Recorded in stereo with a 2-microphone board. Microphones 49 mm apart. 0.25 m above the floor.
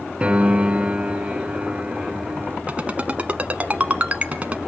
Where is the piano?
20° right (ahead or behind), 0.8 m.